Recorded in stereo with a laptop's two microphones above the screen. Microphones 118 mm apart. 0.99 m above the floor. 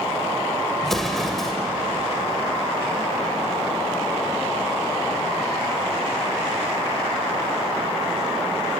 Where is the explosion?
Centre (ahead or behind), 2.5 m.